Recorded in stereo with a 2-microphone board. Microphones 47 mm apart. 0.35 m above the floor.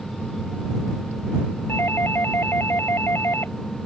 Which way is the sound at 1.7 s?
55° left (ahead or behind).